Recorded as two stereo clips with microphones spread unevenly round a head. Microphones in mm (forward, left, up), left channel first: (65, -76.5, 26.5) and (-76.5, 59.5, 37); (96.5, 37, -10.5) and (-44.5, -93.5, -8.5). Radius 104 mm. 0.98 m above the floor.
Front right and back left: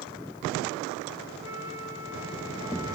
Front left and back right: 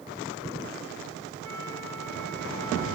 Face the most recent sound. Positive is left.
turn(degrees=-150)